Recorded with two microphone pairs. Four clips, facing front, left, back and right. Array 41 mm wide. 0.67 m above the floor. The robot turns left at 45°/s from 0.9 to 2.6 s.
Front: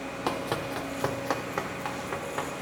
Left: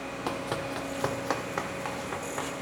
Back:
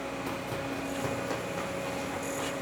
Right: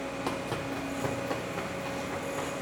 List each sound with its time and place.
0.3 s running footsteps: 5° left, 1.2 m; by 2.6 s 20° left, 3 m